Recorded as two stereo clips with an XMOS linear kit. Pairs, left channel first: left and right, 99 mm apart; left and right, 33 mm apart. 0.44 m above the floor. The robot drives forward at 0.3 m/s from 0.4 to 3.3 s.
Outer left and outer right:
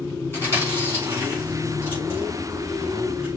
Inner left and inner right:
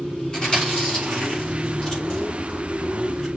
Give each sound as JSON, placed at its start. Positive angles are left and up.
{"t": 0.3, "sound": "chewing", "side_deg": 25, "distance_m": 3.5}